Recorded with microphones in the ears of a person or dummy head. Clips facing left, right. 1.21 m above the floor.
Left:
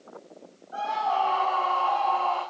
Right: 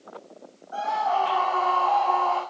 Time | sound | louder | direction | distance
0.7 | a scream | right 2 dB | 80° right | 6.5 m